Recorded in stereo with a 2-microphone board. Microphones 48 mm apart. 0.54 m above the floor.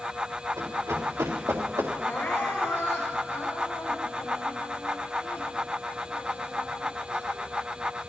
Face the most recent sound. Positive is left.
turn(degrees=65)  # may be behind; listen again after turning